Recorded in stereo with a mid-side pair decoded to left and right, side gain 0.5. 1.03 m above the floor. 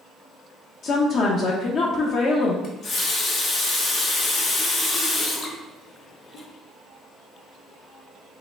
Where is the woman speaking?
60° left, 0.6 m.